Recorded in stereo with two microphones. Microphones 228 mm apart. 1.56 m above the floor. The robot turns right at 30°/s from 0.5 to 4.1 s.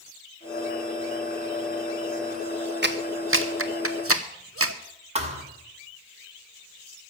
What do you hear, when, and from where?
2.8 s a clap: 50° right (ahead or behind), 0.9 m; by 4.8 s 75° right (ahead or behind), 0.9 m
5.2 s a thud: 30° right (ahead or behind), 1.8 m